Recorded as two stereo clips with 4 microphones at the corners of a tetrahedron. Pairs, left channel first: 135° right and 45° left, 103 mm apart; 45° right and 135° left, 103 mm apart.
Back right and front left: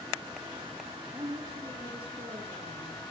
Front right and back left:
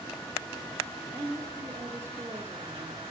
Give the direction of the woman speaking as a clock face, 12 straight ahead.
10 o'clock.